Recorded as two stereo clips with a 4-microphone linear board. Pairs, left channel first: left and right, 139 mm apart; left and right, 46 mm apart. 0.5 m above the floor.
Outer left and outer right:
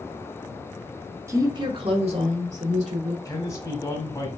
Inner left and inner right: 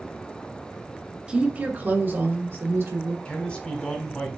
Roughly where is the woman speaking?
Right.